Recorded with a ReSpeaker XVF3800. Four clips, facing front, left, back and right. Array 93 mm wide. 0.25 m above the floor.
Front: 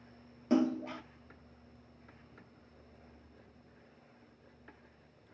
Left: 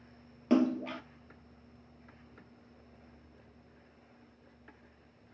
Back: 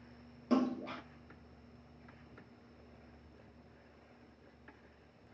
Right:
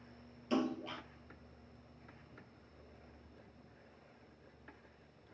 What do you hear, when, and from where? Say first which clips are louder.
0.5 s a splash: left 8 dB, front 3 dB; 80° left, 1.1 m